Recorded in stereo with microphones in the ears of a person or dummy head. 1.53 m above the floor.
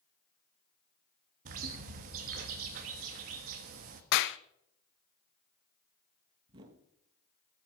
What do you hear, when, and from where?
1.4 s a bird: 50° right (ahead or behind), 1.3 m
4.1 s a clap: 60° left (ahead or behind), 0.6 m
6.5 s a whoosh: 35° right (ahead or behind), 1.2 m